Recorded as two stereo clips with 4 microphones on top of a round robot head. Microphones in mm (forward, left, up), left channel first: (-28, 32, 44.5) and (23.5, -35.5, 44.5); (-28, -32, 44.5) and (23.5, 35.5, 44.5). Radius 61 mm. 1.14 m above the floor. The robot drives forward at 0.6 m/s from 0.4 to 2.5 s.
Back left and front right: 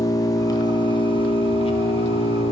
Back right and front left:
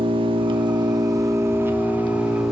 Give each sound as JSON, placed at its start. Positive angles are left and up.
{"t": 0.0, "sound": "an engine running", "azimuth_deg": 80, "distance_m": 1.1}